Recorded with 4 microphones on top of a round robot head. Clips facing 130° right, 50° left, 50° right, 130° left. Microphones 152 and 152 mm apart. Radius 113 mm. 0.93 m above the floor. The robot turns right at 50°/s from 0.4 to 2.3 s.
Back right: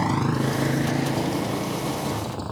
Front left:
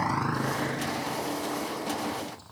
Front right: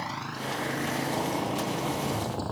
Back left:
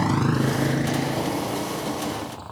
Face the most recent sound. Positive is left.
turn(degrees=-100)